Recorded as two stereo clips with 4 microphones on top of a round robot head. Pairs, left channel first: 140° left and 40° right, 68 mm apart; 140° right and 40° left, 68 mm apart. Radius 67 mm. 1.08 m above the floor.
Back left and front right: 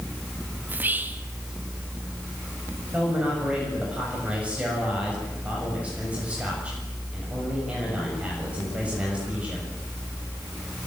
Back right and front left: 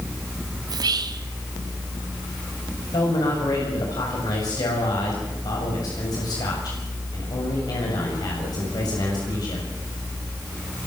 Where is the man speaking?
115° right, 7 m.